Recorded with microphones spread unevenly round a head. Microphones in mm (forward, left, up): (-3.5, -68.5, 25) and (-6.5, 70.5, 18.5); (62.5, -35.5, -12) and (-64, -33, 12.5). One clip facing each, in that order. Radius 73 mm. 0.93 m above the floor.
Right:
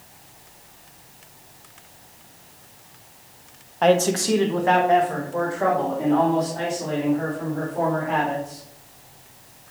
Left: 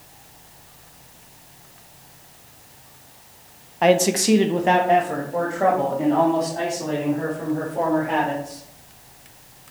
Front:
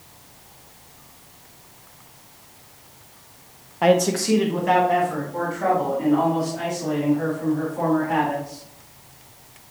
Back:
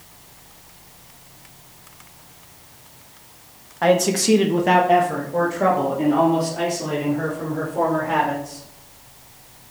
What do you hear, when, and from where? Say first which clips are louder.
3.8 s a man speaking: left 1 dB, back 1 dB; 20° left, 0.7 m; by 8.6 s 160° left, 5 m